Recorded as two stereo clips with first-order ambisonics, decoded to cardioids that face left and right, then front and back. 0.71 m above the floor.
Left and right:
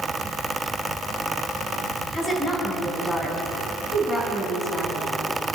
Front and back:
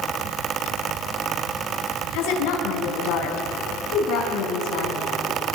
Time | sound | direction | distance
2.1 | a woman speaking | 15° left | 5 m